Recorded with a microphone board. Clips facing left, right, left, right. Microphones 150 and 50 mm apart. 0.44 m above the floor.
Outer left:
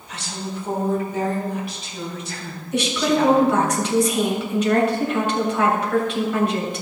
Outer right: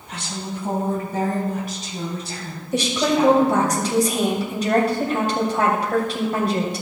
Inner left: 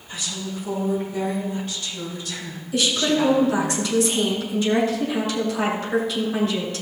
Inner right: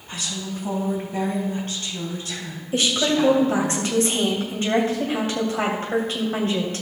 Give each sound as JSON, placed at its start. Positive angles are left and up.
{"t": 0.1, "sound": "a woman speaking", "side_deg": -70, "distance_m": 4.0}
{"t": 2.7, "sound": "a woman speaking", "side_deg": -40, "distance_m": 2.5}